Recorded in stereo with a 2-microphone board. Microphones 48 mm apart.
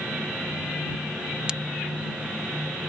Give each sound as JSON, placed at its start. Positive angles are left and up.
{"t": 1.5, "sound": "a crack", "side_deg": -20}